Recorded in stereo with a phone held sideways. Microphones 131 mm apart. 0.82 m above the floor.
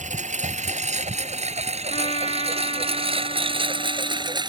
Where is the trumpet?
50° left (ahead or behind).